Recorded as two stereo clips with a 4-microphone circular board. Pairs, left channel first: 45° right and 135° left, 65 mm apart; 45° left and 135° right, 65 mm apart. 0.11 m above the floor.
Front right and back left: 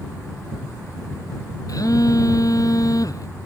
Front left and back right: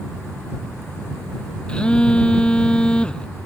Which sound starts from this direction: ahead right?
A phone buzzing, at 1.7 s.